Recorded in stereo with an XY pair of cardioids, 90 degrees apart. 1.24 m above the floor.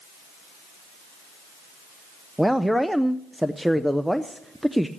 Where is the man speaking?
5° right, 0.6 m.